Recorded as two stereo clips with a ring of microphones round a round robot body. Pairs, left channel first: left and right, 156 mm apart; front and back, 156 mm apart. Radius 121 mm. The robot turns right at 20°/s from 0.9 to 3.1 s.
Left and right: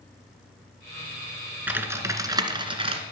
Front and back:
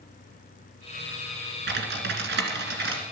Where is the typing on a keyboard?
170° right, 2 m; by 3.0 s 140° right, 2 m.